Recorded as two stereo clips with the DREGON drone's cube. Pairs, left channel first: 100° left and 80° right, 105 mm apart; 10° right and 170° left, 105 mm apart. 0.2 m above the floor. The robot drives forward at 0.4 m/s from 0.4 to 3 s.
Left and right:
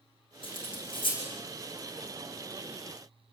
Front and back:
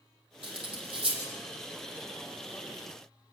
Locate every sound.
0.4 s cutlery clinking: 135° left, 6.5 m; by 1.2 s 140° left, 7 m